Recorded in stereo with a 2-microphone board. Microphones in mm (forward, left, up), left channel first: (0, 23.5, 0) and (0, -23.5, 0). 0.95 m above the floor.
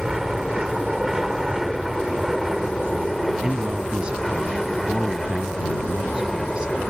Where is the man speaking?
20° right (ahead or behind).